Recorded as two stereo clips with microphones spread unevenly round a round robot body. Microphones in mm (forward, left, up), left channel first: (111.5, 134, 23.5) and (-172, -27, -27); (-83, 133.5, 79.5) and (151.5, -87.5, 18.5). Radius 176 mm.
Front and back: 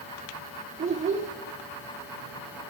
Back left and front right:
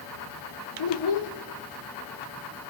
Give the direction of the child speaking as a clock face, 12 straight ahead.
7 o'clock.